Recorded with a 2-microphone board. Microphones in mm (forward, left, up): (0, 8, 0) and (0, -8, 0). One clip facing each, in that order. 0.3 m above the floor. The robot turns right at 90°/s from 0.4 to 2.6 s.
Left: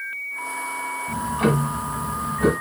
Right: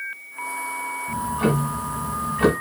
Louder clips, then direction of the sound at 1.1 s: Left 1 dB; 125° left.